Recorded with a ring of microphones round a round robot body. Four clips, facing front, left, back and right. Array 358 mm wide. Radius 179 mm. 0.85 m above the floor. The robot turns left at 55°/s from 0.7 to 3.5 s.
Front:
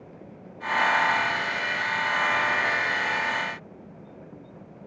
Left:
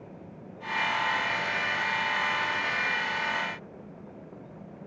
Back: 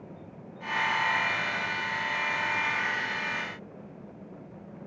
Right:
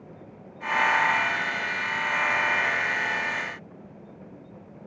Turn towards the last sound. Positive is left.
No sound to turn to.